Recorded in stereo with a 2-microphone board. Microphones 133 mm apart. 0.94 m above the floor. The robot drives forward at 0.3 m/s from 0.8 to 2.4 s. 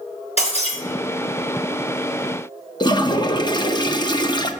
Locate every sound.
0.4 s breaking glass: 50° left (ahead or behind), 3.5 m
2.8 s a toilet flushing: 35° left (ahead or behind), 0.6 m